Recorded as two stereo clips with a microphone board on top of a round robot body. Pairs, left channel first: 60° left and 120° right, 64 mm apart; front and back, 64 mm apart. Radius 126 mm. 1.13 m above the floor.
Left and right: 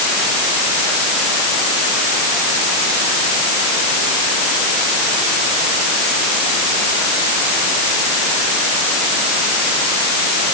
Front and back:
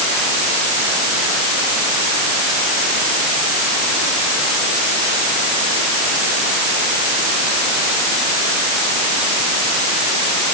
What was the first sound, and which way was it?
Only background noise.